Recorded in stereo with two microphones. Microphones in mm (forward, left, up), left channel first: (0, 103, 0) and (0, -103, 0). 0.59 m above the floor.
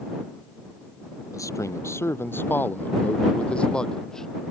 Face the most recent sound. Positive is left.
turn(degrees=0)  # may be behind; listen again after turning